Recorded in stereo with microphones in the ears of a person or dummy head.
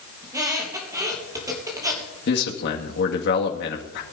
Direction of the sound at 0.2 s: 20° right (ahead or behind).